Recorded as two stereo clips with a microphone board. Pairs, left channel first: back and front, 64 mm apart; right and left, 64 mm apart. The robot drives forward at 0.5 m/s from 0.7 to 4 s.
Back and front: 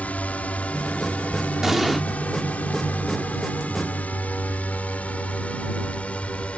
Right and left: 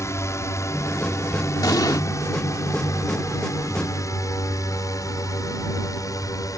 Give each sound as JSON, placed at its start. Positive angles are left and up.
{"t": 0.0, "sound": "a drone", "azimuth_deg": -120}
{"t": 1.6, "sound": "an explosion", "azimuth_deg": -85}